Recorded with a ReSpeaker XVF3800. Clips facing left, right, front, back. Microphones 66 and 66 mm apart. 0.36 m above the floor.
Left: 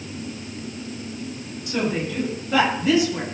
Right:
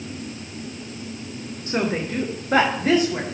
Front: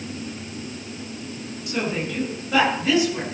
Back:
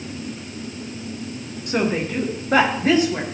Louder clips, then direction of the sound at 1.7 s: Right 1 dB, back 5 dB; 145° right.